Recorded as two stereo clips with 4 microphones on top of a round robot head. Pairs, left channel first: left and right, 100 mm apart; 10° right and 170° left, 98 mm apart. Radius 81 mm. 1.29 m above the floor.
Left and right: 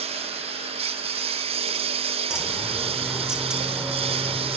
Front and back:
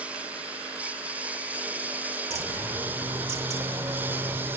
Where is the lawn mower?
105° right; by 4.6 s 110° right.